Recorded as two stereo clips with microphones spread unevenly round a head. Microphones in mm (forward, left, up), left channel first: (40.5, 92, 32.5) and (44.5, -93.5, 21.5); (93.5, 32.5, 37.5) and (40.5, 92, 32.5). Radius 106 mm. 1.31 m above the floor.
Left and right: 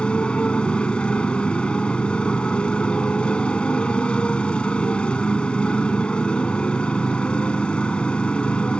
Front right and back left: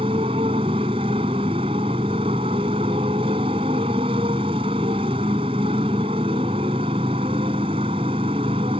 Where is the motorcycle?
175° left.